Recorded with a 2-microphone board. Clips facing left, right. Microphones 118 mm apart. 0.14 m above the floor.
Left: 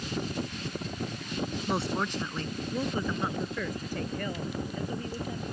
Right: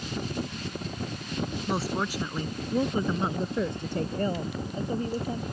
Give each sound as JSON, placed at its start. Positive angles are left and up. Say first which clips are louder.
{"t": 1.7, "sound": "a woman speaking", "louder": "right 1 dB", "side_deg": 0}